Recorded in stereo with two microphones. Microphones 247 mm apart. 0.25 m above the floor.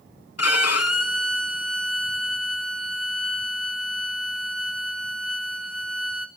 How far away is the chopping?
I don't hear chopping.